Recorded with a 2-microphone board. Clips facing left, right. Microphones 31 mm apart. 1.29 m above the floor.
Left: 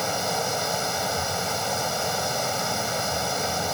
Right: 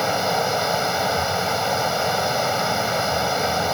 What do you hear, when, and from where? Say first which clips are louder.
0.0 s running water: right 5 dB; 25° right (ahead or behind)